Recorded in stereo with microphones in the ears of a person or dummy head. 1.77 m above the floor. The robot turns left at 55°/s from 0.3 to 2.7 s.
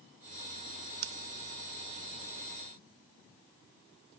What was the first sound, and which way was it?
Scissors, 65° right (ahead or behind).